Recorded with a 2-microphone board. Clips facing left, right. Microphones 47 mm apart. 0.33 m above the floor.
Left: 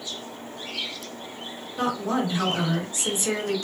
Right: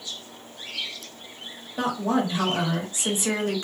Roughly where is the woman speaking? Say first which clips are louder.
Right 1 dB; right.